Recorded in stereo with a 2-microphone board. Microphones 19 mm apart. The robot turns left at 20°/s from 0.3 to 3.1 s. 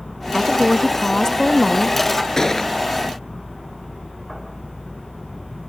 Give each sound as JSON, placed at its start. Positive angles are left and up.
{"t": 0.3, "sound": "a woman speaking", "azimuth_deg": 135}
{"t": 2.4, "sound": "a gunshot", "side_deg": 30}